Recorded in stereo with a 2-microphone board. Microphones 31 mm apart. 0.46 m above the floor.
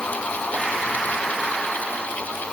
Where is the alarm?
No alarm in this recording.